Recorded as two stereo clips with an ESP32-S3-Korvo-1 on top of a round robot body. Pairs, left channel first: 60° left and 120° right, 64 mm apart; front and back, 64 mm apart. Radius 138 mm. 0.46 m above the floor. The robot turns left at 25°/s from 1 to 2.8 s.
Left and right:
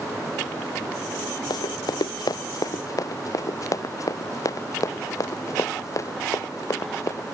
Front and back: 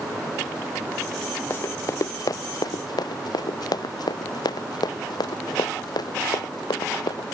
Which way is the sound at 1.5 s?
60° left.